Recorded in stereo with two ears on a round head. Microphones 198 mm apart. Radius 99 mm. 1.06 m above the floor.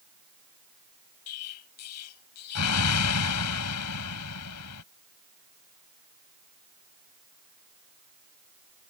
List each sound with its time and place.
1.3 s an explosion: 85° left